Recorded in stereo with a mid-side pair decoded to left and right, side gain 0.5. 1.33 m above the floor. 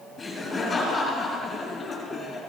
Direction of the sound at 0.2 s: 30° left.